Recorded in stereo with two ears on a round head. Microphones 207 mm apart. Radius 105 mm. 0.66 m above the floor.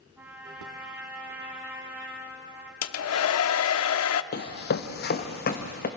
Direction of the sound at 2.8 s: 65° left (ahead or behind).